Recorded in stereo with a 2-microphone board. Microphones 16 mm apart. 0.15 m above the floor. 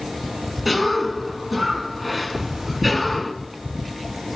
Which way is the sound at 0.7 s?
10° right (ahead or behind).